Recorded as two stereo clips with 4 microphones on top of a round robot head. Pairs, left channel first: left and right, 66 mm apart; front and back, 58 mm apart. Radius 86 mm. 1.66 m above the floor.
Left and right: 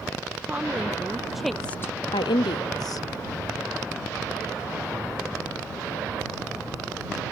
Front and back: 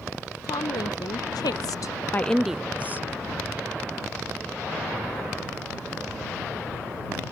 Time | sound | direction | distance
0.4 | a woman speaking | 15° right | ?